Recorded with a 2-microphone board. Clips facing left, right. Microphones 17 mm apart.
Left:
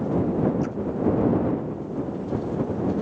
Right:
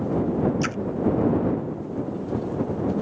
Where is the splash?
75° right (ahead or behind).